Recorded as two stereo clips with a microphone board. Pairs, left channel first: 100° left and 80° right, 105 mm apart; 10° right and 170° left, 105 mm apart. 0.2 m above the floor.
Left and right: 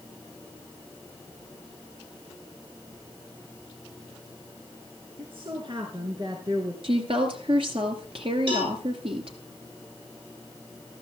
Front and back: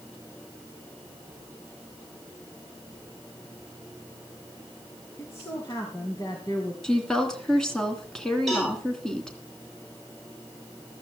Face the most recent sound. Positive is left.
turn(degrees=-105)